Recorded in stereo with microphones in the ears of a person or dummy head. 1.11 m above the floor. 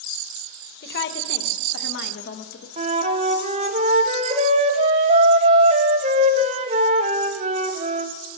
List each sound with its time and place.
0.8 s a woman speaking: 50° left (ahead or behind), 1.2 m; by 2.7 s 55° left (ahead or behind), 1.8 m
2.8 s a flute: 35° right (ahead or behind), 0.8 m